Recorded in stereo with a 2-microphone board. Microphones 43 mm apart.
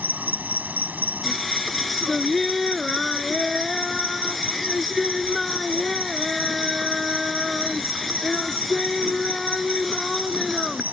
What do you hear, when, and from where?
0.0 s an insect: 45° right (ahead or behind)
1.2 s singing: centre (ahead or behind)